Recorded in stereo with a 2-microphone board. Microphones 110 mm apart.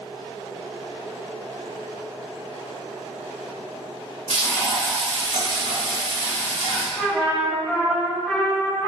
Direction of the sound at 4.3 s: 55° right (ahead or behind).